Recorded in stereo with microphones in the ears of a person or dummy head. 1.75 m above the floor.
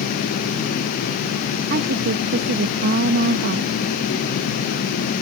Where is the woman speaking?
55° right (ahead or behind).